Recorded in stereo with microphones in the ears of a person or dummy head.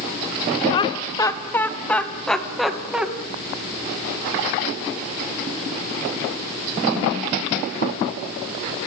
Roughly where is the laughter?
Left.